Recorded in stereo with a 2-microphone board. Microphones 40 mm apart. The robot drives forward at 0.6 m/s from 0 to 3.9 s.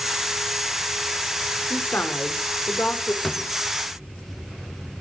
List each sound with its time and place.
1.7 s a woman speaking: 60° left (ahead or behind), 4 m; by 3.1 s 50° left (ahead or behind), 4.5 m
3.2 s a drawer: 10° left (ahead or behind), 0.5 m; by 3.5 s 15° left (ahead or behind), 0.5 m